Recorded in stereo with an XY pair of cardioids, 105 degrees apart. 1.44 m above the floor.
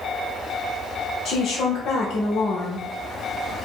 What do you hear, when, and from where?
1.2 s a woman speaking: 65° left, 0.9 m